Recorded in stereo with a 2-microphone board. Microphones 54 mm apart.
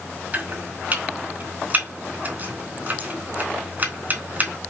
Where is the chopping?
35° right (ahead or behind), 4 m.